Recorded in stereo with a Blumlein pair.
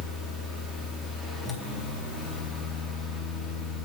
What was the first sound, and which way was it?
A fan, straight ahead.